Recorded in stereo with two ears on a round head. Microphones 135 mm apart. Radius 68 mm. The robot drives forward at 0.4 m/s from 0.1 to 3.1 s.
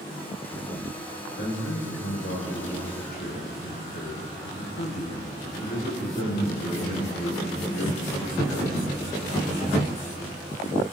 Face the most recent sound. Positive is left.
turn(degrees=70)  # may be behind; listen again after turning